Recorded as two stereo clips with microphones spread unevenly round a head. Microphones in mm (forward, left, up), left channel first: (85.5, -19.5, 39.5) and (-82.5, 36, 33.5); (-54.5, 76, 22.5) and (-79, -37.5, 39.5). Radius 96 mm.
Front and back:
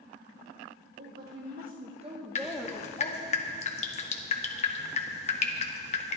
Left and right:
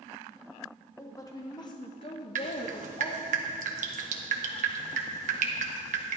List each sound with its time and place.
1.0 s a woman speaking: 140° left, 2 m; by 3.4 s 20° left, 1.5 m
2.4 s dripping: 75° right, 1.2 m